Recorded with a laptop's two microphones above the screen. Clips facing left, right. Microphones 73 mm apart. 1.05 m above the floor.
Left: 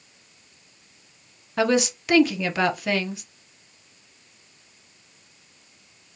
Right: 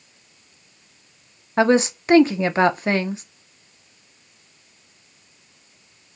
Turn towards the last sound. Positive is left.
turn(degrees=-30)  # may be behind; listen again after turning